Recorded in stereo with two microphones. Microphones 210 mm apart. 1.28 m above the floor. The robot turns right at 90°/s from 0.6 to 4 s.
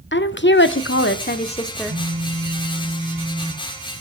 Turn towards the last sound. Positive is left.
turn(degrees=150)